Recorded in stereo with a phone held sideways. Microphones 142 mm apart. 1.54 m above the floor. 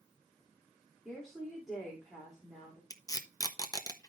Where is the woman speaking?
Centre (ahead or behind), 3 m.